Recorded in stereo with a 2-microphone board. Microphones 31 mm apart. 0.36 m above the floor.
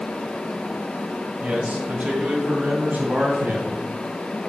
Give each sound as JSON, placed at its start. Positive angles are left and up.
{"t": 1.4, "sound": "a man speaking", "side_deg": -40, "distance_m": 1.8}